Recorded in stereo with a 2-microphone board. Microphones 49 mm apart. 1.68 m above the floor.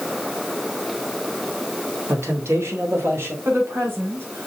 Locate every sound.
2.1 s a man speaking: 80° right, 2.5 m; by 3.4 s 60° right (ahead or behind), 3 m
3.5 s a woman speaking: 60° right (ahead or behind), 5 m